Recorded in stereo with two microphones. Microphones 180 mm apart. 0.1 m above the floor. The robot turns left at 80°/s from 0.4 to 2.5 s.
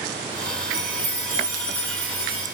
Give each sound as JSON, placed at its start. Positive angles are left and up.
{"t": 0.7, "sound": "a chime", "azimuth_deg": -110, "distance_m": 2.0}